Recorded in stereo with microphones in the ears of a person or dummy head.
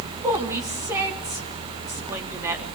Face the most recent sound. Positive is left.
turn(degrees=-15)  # may be behind; listen again after turning